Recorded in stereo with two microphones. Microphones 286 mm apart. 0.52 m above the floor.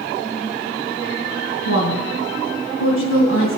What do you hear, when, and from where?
1.6 s a woman speaking: 50° left (ahead or behind), 4 m